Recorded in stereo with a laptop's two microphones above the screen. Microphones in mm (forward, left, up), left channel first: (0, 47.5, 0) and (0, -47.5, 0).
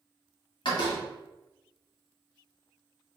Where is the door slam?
55° left (ahead or behind), 1.1 m.